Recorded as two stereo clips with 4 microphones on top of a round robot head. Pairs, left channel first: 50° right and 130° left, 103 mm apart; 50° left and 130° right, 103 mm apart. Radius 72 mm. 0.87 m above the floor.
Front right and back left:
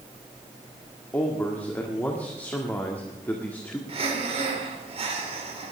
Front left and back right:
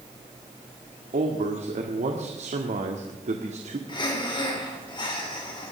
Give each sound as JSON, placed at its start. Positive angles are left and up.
{"t": 1.1, "sound": "a man speaking", "azimuth_deg": -125, "distance_m": 1.6}
{"t": 3.9, "sound": "breathing", "azimuth_deg": 95, "distance_m": 3.5}